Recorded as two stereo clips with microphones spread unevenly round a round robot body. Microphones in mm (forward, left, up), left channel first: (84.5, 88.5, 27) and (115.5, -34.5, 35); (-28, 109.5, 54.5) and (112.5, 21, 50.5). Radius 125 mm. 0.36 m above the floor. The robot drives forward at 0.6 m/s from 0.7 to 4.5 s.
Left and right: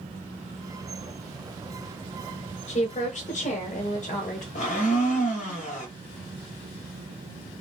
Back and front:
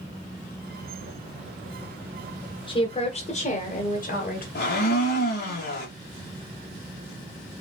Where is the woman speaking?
95° left, 1.3 m; by 4.5 s 140° left, 1.7 m.